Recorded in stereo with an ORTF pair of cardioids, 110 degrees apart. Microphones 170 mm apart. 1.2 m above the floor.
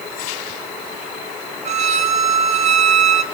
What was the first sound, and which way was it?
A violin, 45° right.